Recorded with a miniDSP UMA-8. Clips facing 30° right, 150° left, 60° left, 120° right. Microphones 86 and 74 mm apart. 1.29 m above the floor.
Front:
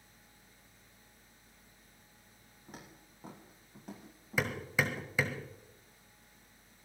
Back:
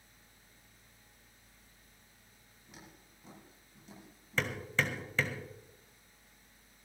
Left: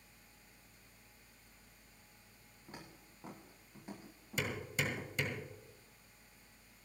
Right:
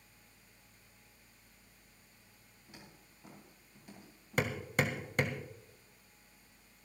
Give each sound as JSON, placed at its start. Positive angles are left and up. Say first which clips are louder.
{"t": 2.7, "sound": "footsteps", "louder": "front 4 dB, left 3 dB", "azimuth_deg": 15, "distance_m": 7.5}
{"t": 4.4, "sound": "hammering", "louder": "front 1 dB, right 5 dB", "azimuth_deg": -105, "distance_m": 1.7}